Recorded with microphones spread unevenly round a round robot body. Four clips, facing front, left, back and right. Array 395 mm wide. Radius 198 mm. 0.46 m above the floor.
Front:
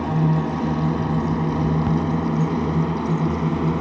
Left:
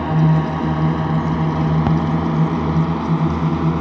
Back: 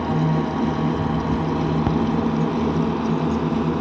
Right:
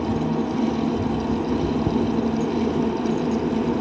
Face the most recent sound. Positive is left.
turn(degrees=85)